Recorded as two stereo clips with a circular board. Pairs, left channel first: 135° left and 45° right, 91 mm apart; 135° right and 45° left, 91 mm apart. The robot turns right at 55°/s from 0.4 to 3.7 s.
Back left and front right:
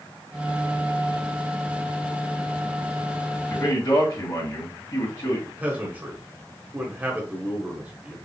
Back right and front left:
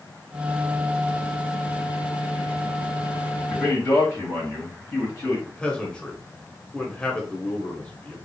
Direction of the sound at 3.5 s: 155° left.